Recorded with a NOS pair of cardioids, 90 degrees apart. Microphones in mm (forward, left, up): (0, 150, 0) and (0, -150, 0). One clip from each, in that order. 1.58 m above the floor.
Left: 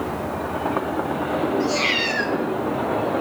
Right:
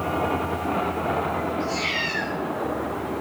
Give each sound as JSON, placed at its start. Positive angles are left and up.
{"t": 1.6, "sound": "a cat meowing", "azimuth_deg": 40, "distance_m": 2.5}